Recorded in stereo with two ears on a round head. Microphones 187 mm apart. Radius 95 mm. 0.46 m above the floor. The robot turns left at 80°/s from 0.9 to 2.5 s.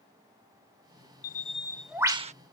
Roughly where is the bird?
Ahead left.